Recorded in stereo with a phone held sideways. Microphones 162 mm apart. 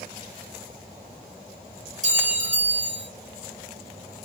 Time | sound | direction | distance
2.0 | a clink | 50° right (ahead or behind) | 1.8 m